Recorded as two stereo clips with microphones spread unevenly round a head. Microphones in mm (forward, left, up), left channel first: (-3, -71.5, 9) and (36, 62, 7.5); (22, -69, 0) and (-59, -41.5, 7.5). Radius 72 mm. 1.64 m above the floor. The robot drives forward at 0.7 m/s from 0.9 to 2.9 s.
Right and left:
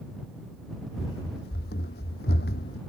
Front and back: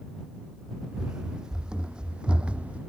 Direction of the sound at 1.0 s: 115° right.